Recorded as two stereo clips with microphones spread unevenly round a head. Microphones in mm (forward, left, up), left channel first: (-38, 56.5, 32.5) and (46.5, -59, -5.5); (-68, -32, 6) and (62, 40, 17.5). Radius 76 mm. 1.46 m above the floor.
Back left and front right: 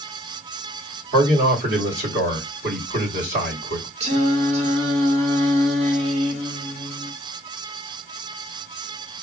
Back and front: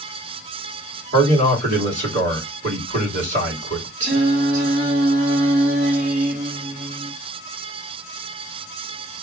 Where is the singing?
5° right, 1.4 m.